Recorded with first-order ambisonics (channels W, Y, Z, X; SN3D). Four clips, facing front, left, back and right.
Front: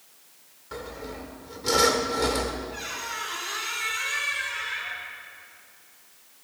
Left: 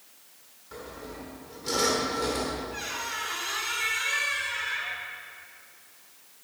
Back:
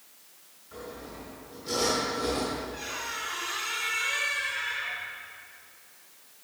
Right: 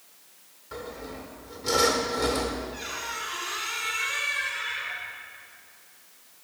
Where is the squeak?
65° left, 3 m.